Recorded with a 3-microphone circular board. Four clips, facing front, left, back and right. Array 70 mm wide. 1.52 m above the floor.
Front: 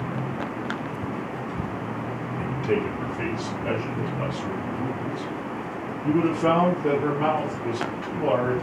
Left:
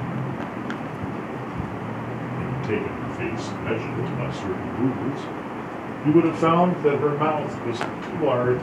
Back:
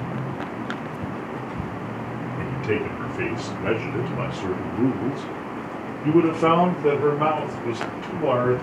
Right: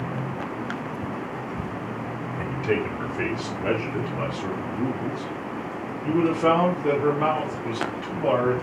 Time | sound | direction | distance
2.4 | a man speaking | 135° right | 1.7 m